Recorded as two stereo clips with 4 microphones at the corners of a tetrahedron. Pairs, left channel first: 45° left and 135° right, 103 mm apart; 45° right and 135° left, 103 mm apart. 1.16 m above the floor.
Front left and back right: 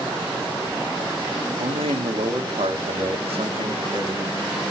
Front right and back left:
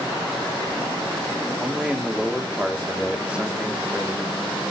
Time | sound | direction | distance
1.6 | a man speaking | 145° right | 2 m